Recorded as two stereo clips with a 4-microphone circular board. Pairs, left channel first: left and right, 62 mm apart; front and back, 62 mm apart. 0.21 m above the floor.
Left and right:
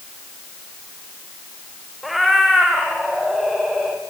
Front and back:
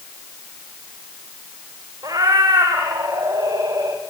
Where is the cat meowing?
Straight behind, 5.5 m.